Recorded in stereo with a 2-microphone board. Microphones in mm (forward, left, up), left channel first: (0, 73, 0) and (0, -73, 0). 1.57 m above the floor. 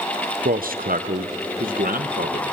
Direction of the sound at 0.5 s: 75° right (ahead or behind).